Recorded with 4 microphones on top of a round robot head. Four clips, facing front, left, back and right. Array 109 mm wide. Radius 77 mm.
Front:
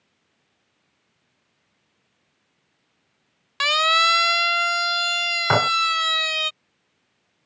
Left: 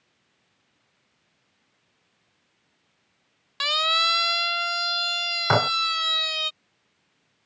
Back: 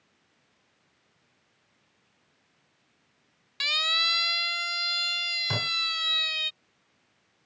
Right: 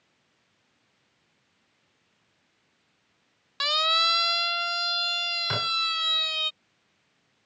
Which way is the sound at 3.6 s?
5° right.